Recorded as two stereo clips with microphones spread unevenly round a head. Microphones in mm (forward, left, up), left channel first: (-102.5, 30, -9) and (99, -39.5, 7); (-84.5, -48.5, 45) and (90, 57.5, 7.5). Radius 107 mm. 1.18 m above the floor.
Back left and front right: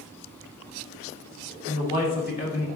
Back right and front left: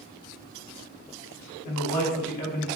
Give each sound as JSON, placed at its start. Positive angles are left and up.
{"t": 1.6, "sound": "a man speaking", "azimuth_deg": -150, "distance_m": 1.6}